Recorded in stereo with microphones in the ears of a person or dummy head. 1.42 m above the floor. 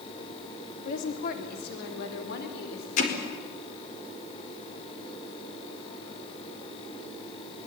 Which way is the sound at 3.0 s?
50° left (ahead or behind).